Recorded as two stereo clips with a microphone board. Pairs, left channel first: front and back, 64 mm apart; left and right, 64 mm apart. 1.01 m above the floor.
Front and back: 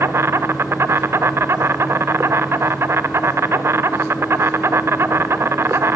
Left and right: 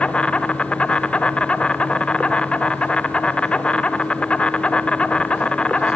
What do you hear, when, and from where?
0.0 s an insect: 155° left, 0.8 m